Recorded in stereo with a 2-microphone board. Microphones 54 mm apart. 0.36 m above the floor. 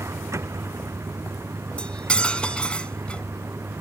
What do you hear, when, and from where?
0.0 s a vehicle: 60° right (ahead or behind); by 3.8 s 55° right (ahead or behind)
1.8 s cutlery clinking: 20° left (ahead or behind)